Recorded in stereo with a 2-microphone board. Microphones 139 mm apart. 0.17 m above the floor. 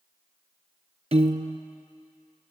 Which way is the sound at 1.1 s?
55° right (ahead or behind).